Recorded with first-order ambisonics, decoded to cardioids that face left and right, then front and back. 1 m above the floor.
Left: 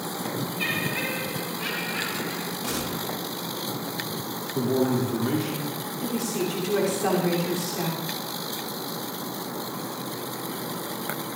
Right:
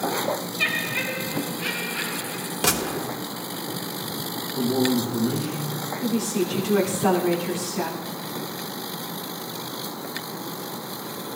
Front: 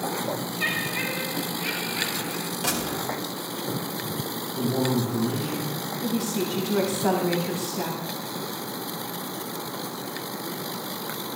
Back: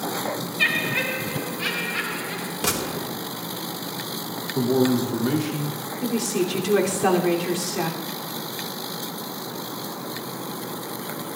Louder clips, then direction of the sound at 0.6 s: Right 3 dB, back 6 dB; 160° right.